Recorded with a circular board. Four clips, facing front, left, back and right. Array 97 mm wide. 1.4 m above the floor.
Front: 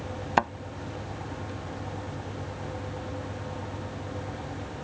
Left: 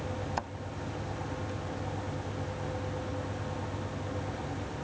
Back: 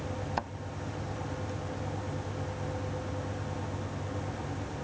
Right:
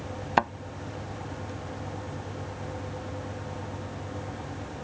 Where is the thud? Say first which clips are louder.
Right 15 dB, front 12 dB; 50° right.